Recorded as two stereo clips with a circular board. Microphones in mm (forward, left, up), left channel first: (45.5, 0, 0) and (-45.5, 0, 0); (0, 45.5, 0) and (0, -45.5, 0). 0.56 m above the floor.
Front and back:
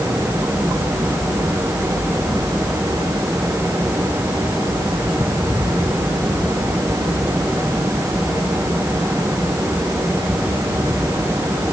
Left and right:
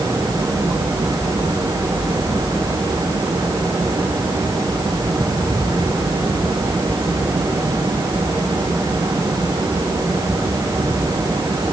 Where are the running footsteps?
No running footsteps in this recording.